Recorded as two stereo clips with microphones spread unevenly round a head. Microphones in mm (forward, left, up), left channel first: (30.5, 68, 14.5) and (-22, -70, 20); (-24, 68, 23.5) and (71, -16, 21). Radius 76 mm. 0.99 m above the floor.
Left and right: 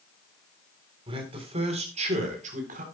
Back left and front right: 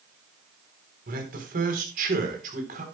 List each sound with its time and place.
1.1 s a man speaking: 55° right, 3.5 m; by 2.9 s 75° right, 3.5 m